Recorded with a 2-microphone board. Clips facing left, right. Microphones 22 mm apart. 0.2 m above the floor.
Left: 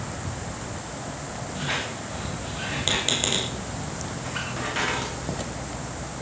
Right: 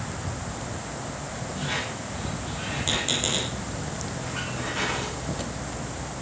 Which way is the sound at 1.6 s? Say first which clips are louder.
Left 2 dB; 30° left (ahead or behind).